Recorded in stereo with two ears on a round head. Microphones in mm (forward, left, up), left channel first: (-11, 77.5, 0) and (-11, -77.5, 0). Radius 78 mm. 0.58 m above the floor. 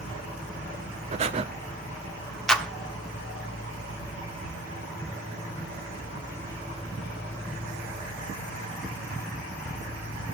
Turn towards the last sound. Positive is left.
turn(degrees=5)  # may be behind; listen again after turning